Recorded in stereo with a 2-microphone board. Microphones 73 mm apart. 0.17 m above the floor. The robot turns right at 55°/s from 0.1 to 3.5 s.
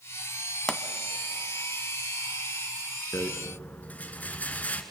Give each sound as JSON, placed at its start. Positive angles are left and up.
{"t": 0.7, "sound": "a pop", "side_deg": 5, "distance_m": 0.6}
{"t": 3.1, "sound": "a rattle", "side_deg": 35, "distance_m": 1.3}